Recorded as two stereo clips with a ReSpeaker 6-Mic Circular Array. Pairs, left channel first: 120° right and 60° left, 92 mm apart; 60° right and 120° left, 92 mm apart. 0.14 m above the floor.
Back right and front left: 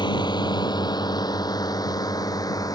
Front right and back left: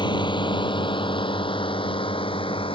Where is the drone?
90° right; by 2.8 s 75° right.